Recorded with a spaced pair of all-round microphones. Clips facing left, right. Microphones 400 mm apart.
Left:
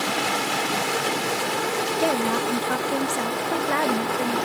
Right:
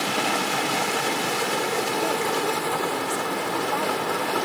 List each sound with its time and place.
2.0 s a woman speaking: 80° left